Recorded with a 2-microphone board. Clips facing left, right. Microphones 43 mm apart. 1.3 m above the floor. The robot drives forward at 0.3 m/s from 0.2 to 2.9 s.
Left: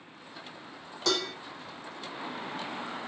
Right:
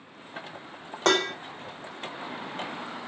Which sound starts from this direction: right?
Dishes clattering, at 1.1 s.